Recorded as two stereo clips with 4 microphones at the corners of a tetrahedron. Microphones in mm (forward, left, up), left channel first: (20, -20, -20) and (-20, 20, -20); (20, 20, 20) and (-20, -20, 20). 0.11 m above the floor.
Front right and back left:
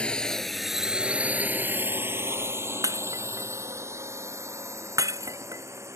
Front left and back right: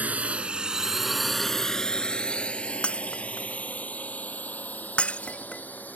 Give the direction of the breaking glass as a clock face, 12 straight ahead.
8 o'clock.